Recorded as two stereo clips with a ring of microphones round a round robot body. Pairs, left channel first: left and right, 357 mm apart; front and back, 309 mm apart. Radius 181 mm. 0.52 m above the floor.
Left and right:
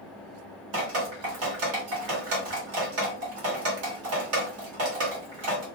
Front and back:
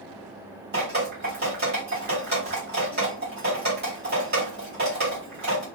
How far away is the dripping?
About 1.2 m.